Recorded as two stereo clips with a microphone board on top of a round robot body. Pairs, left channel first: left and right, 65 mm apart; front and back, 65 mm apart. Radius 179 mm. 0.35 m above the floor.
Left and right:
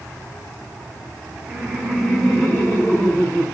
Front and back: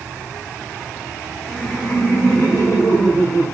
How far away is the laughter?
About 1.0 m.